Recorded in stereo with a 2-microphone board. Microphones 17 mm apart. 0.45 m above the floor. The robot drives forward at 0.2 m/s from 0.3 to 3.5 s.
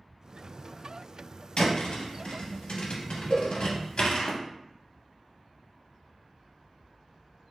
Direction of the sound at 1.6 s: 70° left (ahead or behind).